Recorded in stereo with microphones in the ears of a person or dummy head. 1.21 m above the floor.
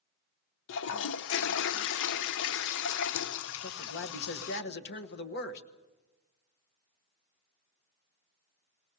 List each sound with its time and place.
0.7 s a toilet flushing: 70° left (ahead or behind), 0.5 m
3.6 s a man speaking: 55° left (ahead or behind), 1.3 m